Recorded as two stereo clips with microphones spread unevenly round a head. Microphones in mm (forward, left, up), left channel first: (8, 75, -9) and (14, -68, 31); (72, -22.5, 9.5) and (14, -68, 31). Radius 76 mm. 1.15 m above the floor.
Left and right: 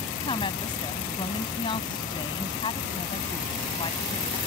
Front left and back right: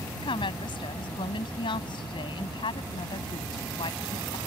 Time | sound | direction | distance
0.2 | a woman speaking | 30° left | ?